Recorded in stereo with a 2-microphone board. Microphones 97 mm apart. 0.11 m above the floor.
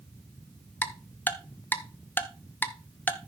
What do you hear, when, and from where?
0.8 s ticking: 20° left (ahead or behind), 0.7 m